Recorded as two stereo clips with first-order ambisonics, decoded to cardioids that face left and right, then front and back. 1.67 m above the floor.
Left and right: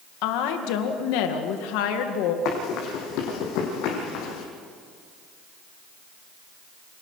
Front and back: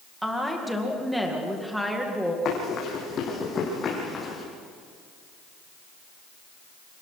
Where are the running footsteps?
55° left, 5 m; by 4.5 s 80° left, 4.5 m.